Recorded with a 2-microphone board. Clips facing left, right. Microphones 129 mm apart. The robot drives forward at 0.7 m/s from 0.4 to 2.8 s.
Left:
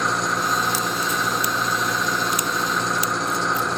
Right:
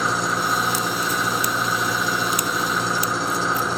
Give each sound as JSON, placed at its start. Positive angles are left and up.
{"t": 0.0, "sound": "an engine running", "side_deg": 0}